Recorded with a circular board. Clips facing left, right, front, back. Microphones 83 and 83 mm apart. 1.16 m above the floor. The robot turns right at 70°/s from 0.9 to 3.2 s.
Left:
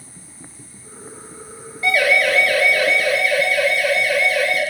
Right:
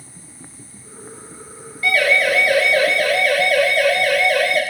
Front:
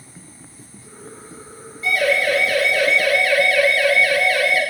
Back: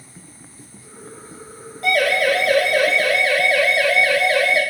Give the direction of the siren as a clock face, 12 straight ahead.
7 o'clock.